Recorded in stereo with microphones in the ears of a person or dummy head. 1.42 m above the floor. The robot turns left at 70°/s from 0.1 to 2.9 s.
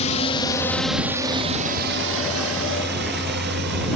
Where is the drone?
35° left (ahead or behind); by 4.0 s 60° right (ahead or behind).